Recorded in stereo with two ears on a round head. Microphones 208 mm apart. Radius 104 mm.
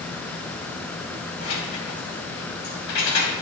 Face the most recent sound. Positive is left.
turn(degrees=85)